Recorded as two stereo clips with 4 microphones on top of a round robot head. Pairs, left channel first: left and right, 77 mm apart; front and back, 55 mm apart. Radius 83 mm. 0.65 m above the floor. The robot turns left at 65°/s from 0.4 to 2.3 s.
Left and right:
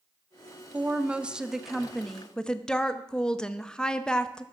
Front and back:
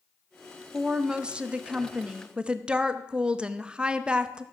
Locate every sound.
0.7 s a woman speaking: 110° right, 0.8 m; by 4.4 s 145° left, 0.8 m